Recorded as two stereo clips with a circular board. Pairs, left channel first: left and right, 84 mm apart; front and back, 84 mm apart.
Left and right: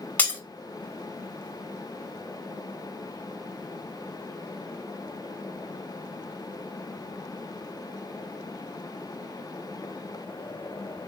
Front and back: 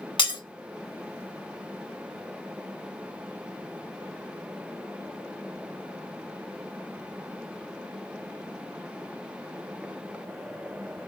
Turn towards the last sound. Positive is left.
turn(degrees=20)